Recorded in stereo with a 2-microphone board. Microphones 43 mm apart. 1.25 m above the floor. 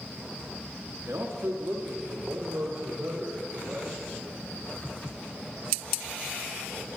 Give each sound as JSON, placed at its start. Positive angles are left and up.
{"t": 1.1, "sound": "a man speaking", "side_deg": -85, "distance_m": 1.7}